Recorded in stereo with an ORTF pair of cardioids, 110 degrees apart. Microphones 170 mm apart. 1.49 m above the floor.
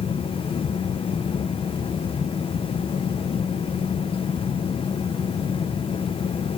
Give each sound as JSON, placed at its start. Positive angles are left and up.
{"t": 0.0, "sound": "a fan", "azimuth_deg": 35, "distance_m": 0.8}